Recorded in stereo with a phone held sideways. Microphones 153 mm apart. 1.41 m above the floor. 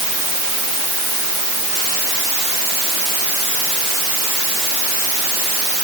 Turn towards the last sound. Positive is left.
No sound to turn to.